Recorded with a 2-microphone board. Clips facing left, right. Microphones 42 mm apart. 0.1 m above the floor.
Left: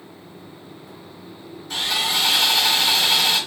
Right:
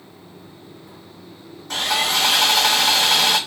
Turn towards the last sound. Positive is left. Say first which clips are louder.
# right 2 dB
turn(degrees=-65)  # may be behind; listen again after turning